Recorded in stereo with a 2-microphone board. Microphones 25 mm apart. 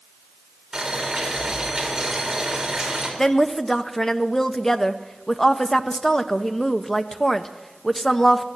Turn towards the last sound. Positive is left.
turn(degrees=20)  # may be behind; listen again after turning